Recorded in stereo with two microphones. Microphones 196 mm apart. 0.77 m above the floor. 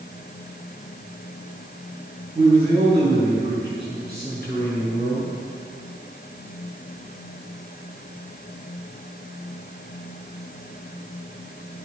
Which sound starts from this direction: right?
A man speaking, at 2.4 s.